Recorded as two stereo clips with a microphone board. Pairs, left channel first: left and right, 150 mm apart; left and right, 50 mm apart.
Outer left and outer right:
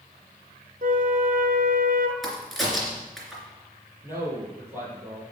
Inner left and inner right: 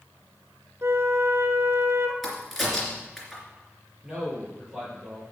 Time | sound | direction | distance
0.8 | a flute | 70° right (ahead or behind) | 1.0 m
2.2 | a crack | centre (ahead or behind) | 3 m
4.0 | a man speaking | 20° right (ahead or behind) | 4.5 m